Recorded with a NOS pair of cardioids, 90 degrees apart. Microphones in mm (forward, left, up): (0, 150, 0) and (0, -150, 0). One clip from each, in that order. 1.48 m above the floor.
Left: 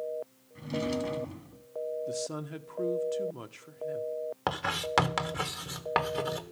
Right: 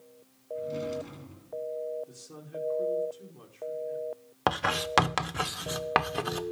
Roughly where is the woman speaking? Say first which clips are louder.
Left 11 dB; left.